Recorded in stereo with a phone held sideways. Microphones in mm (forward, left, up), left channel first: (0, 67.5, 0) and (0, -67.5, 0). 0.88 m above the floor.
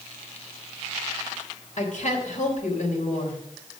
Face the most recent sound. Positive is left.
turn(degrees=60)  # may be behind; listen again after turning